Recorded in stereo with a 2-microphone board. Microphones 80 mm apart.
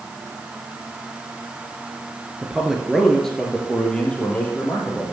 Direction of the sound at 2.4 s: 10° right (ahead or behind).